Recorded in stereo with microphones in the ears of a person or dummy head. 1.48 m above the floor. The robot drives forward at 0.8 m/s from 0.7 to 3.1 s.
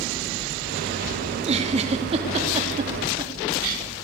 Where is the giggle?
30° right (ahead or behind), 3 m; by 3.8 s 20° right (ahead or behind), 4.5 m.